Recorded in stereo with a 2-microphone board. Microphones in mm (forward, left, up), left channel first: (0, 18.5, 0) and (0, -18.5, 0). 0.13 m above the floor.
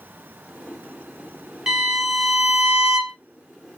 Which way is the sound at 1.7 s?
10° right (ahead or behind).